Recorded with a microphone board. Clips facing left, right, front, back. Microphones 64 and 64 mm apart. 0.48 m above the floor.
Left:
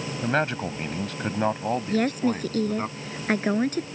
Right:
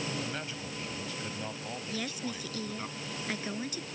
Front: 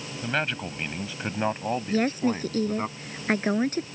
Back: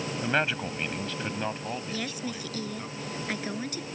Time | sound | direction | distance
0.2 | a man speaking | 100° left | ?
1.9 | a woman speaking | 50° left | ?